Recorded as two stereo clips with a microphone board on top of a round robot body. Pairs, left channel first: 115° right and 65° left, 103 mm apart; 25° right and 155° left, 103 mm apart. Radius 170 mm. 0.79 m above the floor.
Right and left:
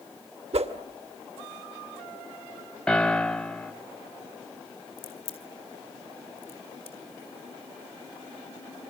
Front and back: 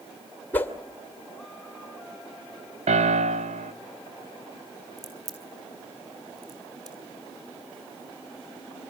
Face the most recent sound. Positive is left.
turn(degrees=-145)